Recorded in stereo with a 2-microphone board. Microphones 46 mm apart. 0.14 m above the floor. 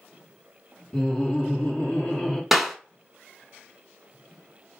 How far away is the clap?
About 0.9 m.